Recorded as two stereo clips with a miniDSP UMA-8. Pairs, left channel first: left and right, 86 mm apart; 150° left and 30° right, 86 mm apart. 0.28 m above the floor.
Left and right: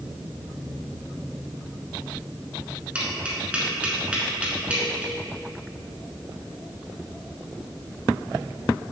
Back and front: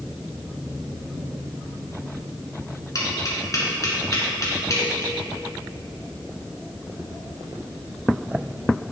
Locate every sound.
3.0 s tapping: 165° right, 1.5 m